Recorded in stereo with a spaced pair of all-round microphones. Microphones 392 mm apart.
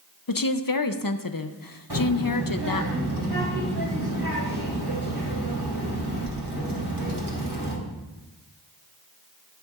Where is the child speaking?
75° right (ahead or behind), 3.5 m.